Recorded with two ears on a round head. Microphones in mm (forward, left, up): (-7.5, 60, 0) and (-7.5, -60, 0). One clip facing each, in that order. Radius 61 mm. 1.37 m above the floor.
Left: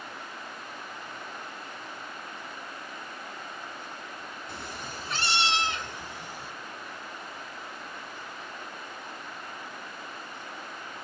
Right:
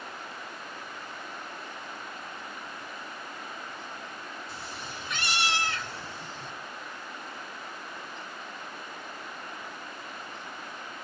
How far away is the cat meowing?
About 1.2 m.